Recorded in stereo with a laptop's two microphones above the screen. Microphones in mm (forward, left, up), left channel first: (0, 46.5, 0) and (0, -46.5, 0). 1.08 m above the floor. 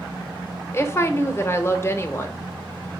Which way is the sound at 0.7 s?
30° left (ahead or behind).